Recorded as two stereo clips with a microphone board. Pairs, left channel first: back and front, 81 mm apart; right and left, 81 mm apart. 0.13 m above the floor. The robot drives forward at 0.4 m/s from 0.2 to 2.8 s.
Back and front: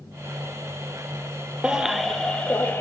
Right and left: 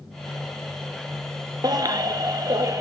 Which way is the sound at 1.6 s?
75° left.